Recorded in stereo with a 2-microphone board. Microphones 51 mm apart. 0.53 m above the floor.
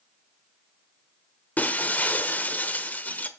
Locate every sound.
1.6 s breaking glass: 30° left (ahead or behind), 0.9 m